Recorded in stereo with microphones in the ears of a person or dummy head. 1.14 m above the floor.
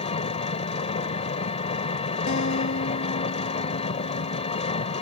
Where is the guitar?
55° left (ahead or behind).